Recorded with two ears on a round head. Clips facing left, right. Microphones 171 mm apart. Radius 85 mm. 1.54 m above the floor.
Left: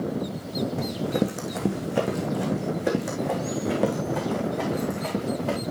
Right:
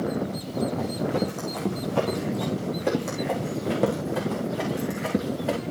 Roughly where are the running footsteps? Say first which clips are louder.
Even; left.